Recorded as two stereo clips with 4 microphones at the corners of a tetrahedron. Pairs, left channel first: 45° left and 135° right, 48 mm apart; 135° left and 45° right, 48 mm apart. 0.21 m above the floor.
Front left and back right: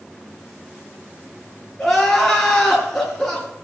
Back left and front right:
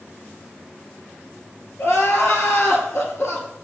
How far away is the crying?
About 3.5 m.